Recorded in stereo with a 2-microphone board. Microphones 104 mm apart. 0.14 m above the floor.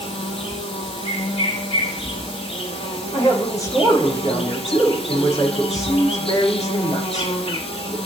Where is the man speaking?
35° left (ahead or behind), 6 m.